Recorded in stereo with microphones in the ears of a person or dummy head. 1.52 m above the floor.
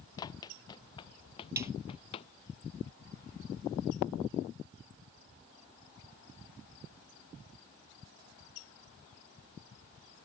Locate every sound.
0.2 s running footsteps: 25° left (ahead or behind); by 2.3 s 35° left (ahead or behind)
1.6 s a snare drum: 10° right (ahead or behind)